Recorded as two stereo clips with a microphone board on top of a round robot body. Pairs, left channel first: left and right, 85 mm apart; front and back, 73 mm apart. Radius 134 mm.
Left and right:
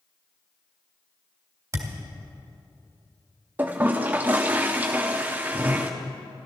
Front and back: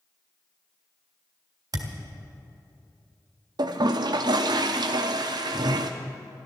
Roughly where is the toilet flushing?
Behind.